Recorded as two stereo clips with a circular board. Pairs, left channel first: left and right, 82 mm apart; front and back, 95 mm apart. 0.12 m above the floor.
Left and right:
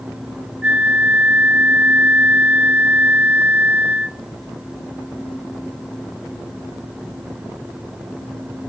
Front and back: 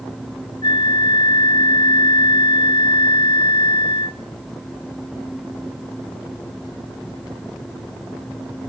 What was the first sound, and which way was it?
A flute, 20° right.